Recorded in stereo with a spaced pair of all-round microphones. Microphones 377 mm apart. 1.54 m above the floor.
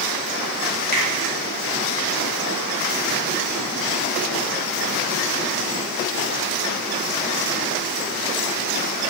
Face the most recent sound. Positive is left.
turn(degrees=-25)  # may be behind; listen again after turning